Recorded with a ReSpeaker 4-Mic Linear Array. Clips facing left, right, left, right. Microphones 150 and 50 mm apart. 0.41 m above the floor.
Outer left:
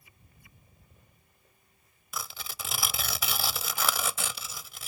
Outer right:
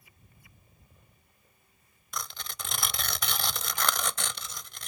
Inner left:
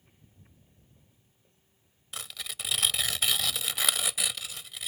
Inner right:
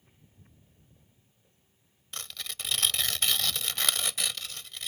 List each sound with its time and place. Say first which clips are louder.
2.1 s tearing paper: even, even; 5° left (ahead or behind)